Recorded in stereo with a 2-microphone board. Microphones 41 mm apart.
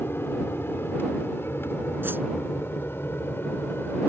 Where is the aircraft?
70° left (ahead or behind); by 4.1 s 65° left (ahead or behind).